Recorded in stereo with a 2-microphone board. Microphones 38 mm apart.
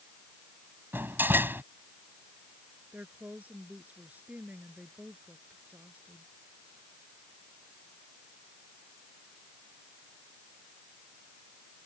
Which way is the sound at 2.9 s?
45° right (ahead or behind).